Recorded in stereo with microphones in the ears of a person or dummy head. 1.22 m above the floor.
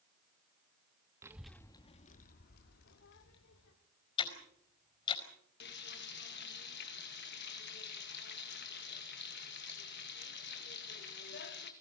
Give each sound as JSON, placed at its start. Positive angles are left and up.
{"t": 1.2, "sound": "a child speaking", "side_deg": -10, "distance_m": 0.9}
{"t": 4.2, "sound": "ticking", "side_deg": 25, "distance_m": 4.5}
{"t": 5.6, "sound": "frying", "side_deg": 55, "distance_m": 2.0}